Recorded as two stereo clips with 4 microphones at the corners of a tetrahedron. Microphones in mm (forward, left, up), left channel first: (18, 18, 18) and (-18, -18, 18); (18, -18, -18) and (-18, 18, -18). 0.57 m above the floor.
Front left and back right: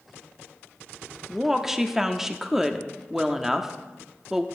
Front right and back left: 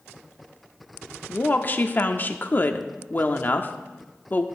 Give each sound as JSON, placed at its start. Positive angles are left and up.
{"t": 1.3, "sound": "a woman speaking", "azimuth_deg": -55, "distance_m": 0.7}